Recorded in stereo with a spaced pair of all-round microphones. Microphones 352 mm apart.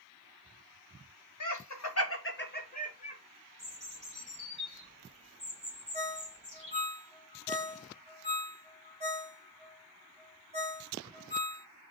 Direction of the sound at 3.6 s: 20° right (ahead or behind).